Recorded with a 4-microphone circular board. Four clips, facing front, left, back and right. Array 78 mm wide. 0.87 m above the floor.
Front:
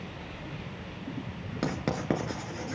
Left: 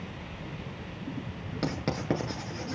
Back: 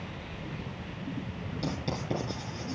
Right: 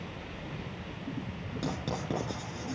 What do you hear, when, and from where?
1.6 s writing: 25° left, 5.5 m